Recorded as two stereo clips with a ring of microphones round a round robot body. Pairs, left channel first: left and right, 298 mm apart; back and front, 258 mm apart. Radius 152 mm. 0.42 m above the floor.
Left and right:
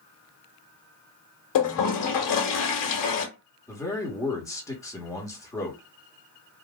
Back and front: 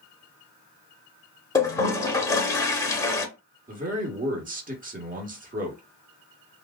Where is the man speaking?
20° left, 1.1 m.